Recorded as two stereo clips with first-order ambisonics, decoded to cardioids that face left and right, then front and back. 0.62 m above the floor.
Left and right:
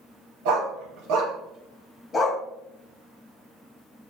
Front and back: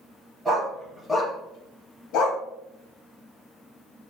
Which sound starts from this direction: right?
A dog barking, at 0.5 s.